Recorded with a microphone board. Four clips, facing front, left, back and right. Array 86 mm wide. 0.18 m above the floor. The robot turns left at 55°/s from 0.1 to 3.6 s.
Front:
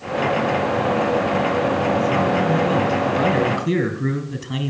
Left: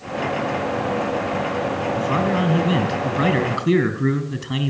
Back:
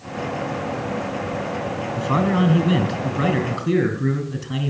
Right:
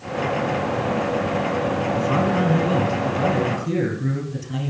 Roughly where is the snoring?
No snoring in this recording.